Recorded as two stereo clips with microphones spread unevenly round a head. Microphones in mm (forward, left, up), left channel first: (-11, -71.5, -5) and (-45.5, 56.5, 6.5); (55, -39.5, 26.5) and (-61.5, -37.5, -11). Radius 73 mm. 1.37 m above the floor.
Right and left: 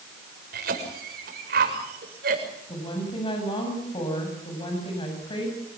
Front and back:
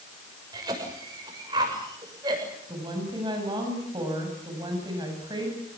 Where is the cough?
115° left, 6.5 m.